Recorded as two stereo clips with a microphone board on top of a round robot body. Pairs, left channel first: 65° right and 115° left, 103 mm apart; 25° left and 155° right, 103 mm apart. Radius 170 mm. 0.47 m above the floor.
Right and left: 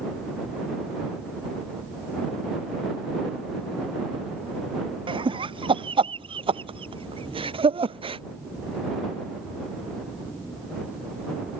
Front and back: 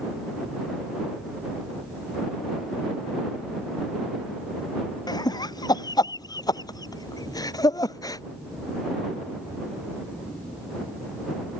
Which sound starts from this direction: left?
Laughter, at 5.1 s.